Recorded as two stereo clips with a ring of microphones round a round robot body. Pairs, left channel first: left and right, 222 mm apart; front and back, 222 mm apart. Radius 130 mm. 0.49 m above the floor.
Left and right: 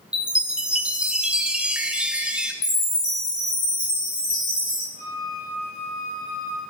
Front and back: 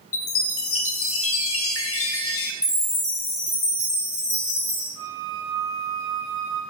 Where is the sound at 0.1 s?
5° right, 0.7 m.